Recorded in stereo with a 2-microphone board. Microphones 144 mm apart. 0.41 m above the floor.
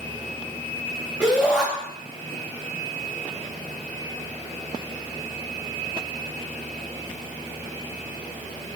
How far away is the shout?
About 3 m.